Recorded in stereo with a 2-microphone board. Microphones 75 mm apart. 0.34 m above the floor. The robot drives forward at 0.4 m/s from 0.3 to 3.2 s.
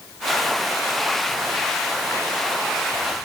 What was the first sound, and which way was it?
Only background noise.